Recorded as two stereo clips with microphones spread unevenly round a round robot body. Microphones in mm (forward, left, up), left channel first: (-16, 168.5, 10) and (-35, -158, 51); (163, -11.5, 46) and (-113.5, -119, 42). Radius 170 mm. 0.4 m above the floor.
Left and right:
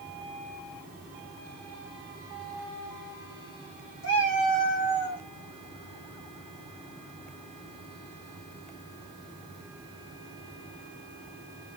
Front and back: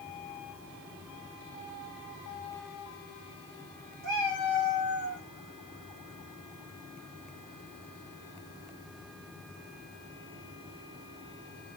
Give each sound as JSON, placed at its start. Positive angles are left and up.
{"t": 4.0, "sound": "a cat meowing", "azimuth_deg": 135, "distance_m": 1.2}